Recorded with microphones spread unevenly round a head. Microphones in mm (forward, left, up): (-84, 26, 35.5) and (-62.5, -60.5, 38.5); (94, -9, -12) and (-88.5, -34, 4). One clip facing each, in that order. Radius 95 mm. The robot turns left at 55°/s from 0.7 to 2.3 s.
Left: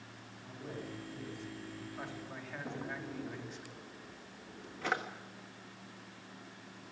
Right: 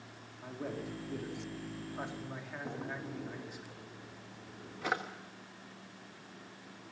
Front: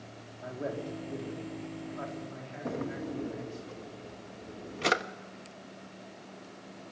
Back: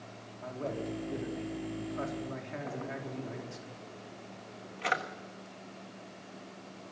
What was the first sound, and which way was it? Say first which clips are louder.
A man speaking: right 5 dB, even; 65° right.